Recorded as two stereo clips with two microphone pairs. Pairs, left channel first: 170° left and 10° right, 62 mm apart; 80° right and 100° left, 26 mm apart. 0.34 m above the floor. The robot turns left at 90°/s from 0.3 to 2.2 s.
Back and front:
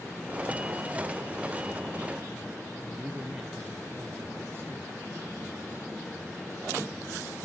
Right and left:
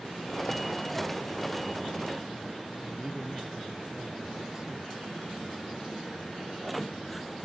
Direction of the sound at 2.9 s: 40° left.